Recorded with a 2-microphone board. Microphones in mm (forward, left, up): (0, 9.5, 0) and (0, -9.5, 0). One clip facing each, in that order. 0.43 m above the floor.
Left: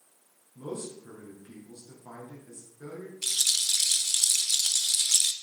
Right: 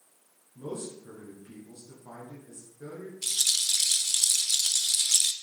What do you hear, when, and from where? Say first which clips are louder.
0.6 s a man speaking: even; 10° left (ahead or behind), 4.5 m
3.2 s a rattle: even; 15° left (ahead or behind), 0.7 m